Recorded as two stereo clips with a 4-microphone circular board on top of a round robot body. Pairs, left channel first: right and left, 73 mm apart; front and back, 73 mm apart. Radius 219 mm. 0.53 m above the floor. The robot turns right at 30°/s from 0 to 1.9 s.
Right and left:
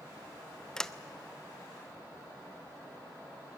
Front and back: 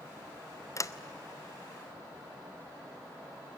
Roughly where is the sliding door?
Ahead.